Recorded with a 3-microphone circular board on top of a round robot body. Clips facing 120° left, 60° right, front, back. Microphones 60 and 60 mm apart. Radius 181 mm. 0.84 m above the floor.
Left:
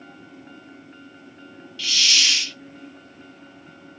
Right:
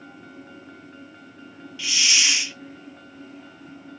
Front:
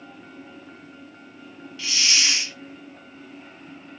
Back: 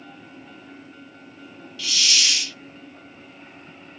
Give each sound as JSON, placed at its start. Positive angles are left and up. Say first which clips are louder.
{"t": 1.8, "sound": "a hiss", "louder": "left 1 dB, even", "azimuth_deg": -15, "distance_m": 0.6}